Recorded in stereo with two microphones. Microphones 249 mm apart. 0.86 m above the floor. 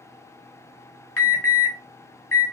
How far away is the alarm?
About 1.7 m.